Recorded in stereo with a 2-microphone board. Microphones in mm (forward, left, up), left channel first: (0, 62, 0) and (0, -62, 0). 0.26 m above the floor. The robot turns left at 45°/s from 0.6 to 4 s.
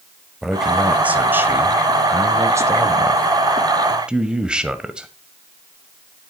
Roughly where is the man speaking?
Centre.